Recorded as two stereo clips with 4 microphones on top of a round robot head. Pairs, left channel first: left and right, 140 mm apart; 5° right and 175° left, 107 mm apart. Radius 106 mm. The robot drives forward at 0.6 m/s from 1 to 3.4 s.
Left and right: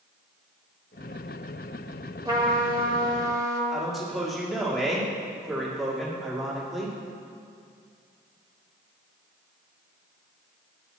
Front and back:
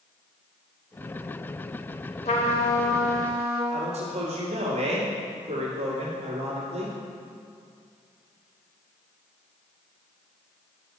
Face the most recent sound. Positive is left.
turn(degrees=180)